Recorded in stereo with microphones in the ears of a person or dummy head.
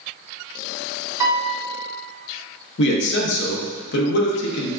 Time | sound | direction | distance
1.2 | a piano | 5° right (ahead or behind) | 0.6 m
2.8 | a man speaking | 65° left (ahead or behind) | 0.5 m